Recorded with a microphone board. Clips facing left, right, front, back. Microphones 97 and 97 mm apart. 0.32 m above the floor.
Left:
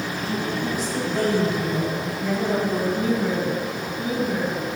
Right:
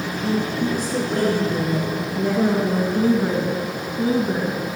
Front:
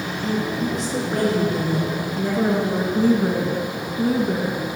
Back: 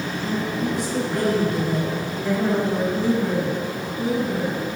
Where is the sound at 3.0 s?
40° right, 2.5 m.